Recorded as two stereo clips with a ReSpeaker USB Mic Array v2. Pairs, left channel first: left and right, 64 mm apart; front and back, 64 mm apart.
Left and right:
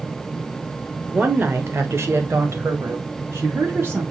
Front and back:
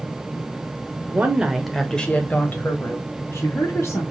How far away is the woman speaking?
About 1.2 m.